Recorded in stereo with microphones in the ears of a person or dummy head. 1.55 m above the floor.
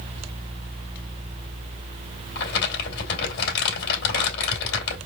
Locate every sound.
2.4 s crumpling: 55° left (ahead or behind), 3 m